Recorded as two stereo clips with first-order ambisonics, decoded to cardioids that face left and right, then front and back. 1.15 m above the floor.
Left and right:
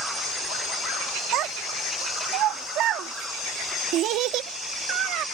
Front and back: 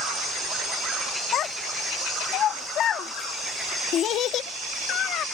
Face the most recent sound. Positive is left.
turn(degrees=-50)